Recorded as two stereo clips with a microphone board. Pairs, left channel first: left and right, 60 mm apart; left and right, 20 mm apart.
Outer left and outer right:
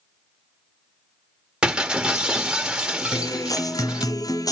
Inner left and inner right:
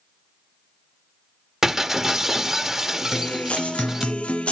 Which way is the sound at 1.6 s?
15° right (ahead or behind).